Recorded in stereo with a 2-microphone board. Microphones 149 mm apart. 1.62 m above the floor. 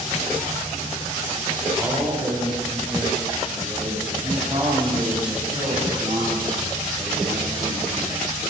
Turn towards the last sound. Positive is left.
turn(degrees=-25)  # may be behind; listen again after turning